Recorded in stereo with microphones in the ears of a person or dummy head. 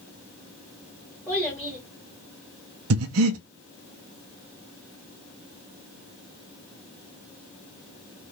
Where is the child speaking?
Centre (ahead or behind), 1.5 m.